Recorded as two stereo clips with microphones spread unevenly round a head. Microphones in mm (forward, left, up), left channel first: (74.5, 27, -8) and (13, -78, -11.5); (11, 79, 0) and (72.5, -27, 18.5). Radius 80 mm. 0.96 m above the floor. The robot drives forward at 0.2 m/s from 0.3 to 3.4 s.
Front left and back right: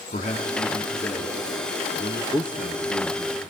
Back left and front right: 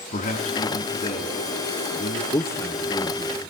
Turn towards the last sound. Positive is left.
turn(degrees=170)